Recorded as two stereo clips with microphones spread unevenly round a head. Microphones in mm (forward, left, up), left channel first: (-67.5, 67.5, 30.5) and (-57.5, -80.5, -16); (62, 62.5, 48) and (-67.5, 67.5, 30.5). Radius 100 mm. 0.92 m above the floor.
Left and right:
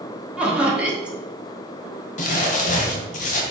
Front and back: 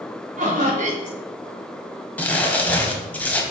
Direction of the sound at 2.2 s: 70° left.